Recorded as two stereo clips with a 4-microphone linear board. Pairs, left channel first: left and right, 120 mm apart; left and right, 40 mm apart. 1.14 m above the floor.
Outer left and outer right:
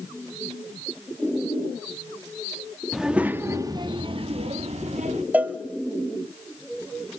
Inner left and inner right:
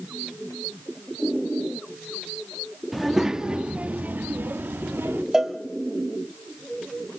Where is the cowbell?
15° right (ahead or behind), 0.9 m.